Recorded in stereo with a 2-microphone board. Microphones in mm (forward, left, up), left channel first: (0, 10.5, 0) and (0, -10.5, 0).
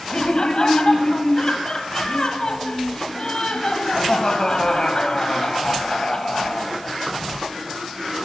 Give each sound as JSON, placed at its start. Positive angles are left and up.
{"t": 0.1, "sound": "laughter", "side_deg": 40, "distance_m": 1.3}